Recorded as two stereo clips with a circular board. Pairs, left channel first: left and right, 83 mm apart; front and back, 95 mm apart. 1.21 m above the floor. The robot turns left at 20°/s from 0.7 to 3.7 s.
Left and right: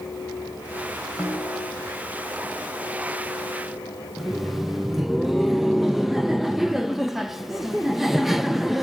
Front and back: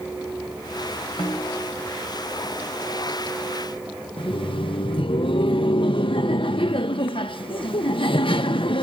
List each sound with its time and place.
1.2 s a snare drum: 15° right, 7 m; by 1.7 s 25° right, 7 m
4.2 s laughter: 5° right, 0.9 m